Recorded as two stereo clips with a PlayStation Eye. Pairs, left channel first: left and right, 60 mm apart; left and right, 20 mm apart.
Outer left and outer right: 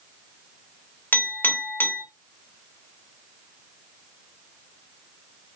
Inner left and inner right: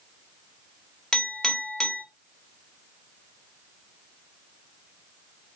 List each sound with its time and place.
1.1 s a clink: 35° left (ahead or behind), 1.1 m